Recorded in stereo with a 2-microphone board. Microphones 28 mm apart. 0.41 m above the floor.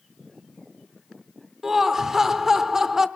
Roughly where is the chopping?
No chopping in this recording.